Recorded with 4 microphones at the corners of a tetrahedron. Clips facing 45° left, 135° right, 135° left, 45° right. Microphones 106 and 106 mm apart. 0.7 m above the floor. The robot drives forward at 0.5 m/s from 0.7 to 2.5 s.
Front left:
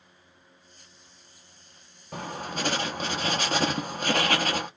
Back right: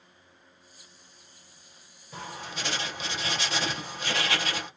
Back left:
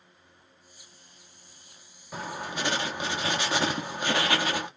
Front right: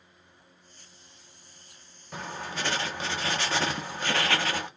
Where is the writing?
50° left, 1.0 m; by 4.7 s 65° left, 0.9 m.